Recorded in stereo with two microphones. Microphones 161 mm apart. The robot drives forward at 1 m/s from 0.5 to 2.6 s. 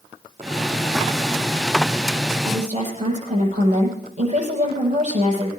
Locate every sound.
2.5 s a woman speaking: 45° right (ahead or behind), 7 m